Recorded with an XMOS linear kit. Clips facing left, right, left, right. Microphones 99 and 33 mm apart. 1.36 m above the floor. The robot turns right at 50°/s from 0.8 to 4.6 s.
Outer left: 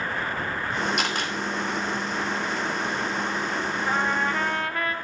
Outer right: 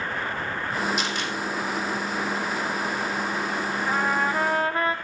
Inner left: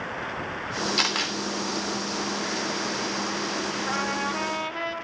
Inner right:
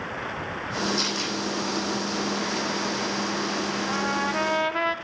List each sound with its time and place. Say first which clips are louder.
1.0 s a camera shutter: outer left 1 dB, inner left 2 dB; 55° left (ahead or behind), 3 m; by 1.3 s 40° left (ahead or behind), 3 m
3.9 s a trumpet: outer right 1 dB, inner right 1 dB; 170° left, 1.3 m; by 5.0 s 155° right, 1.3 m